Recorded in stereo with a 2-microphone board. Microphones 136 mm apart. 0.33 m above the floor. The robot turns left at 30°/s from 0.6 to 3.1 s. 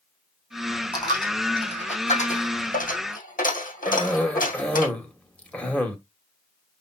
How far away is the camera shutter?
No camera shutter in this recording.